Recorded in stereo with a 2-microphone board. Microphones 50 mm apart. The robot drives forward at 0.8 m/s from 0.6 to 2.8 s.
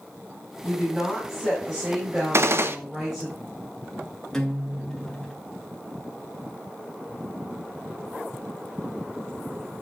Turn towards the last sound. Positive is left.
turn(degrees=10)  # may be behind; listen again after turning